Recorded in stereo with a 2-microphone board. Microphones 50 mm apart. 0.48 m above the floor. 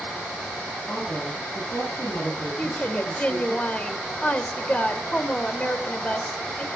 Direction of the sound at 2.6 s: 30° left (ahead or behind).